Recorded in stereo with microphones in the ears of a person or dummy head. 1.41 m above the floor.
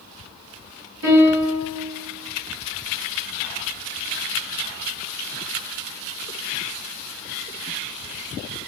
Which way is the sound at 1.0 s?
70° right (ahead or behind).